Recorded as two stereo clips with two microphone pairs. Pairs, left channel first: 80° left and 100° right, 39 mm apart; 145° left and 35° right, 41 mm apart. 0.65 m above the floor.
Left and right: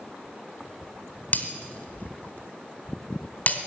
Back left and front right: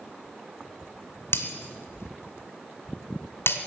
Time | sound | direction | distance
1.3 | breaking glass | 125° left | 1.8 m